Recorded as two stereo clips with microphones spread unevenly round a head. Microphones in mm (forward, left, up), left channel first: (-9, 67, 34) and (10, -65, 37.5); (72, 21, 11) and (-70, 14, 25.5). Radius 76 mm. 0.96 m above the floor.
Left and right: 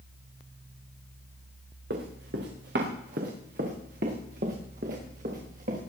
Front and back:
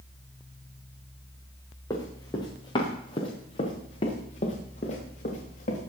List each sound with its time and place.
1.9 s running footsteps: 70° right, 4.5 m; by 5.8 s 45° right, 6 m